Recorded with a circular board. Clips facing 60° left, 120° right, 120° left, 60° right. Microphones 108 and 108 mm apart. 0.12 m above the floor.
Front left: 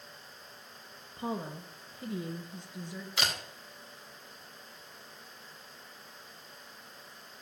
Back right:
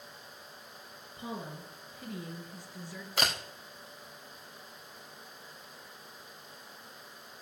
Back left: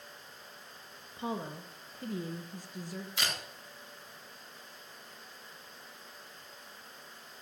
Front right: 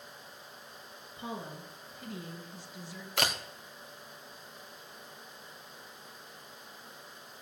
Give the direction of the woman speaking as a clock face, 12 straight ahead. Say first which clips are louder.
Front left 4 dB, back left 4 dB; 9 o'clock.